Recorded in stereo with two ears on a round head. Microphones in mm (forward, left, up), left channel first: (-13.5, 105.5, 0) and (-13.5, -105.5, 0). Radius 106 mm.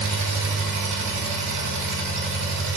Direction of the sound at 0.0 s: 45° right (ahead or behind).